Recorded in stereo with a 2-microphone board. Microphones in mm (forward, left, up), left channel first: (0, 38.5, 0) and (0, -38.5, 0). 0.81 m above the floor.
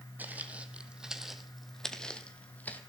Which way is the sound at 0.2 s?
25° right (ahead or behind).